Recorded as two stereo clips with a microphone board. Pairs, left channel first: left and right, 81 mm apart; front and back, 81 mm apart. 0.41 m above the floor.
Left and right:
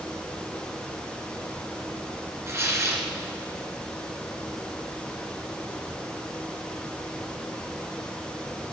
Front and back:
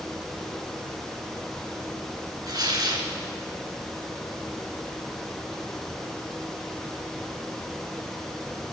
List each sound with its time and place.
2.5 s tearing paper: 140° right, 2.5 m